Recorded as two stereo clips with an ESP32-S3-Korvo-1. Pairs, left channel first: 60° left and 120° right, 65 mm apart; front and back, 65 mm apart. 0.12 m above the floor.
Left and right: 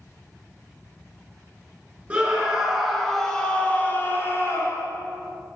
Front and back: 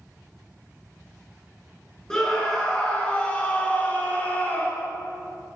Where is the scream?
70° right, 1.2 m; by 4.9 s 60° left, 1.5 m.